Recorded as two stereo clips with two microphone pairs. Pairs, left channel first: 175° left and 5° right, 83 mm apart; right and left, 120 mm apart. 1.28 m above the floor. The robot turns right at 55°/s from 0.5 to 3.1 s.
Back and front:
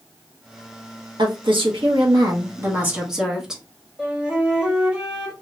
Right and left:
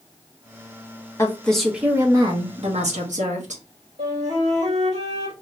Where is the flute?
75° left, 1.3 m.